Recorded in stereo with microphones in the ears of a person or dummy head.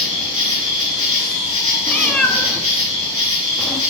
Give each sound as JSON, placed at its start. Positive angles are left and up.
{"t": 0.0, "sound": "an insect", "side_deg": -40, "distance_m": 4.0}
{"t": 1.9, "sound": "a cat meowing", "side_deg": 5, "distance_m": 0.9}